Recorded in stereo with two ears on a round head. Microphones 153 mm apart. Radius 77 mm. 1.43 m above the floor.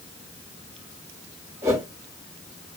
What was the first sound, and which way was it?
A whoosh, 20° right (ahead or behind).